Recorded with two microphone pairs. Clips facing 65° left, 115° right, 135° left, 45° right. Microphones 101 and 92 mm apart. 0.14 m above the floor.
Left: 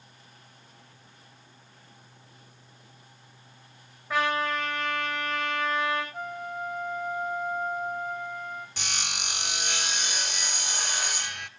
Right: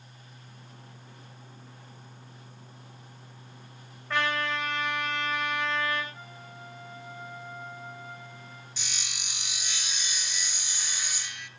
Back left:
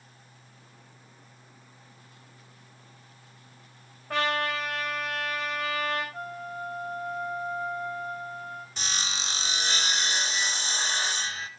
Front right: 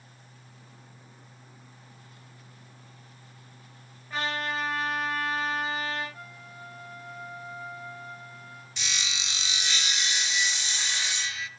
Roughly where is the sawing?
Left.